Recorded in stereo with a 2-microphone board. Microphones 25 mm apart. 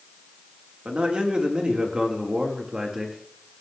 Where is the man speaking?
45° right (ahead or behind), 4 m; by 3.2 s 20° right (ahead or behind), 4.5 m.